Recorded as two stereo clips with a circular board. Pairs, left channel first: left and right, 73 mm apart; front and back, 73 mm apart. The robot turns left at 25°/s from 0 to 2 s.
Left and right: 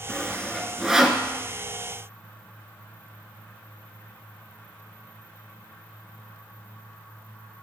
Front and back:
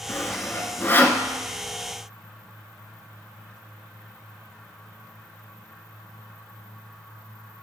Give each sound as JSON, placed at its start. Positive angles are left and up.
{"t": 0.1, "sound": "sawing", "azimuth_deg": 5, "distance_m": 0.6}